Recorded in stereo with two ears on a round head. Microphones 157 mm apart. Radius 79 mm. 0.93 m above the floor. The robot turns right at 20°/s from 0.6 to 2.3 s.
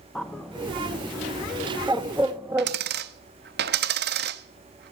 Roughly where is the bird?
Centre.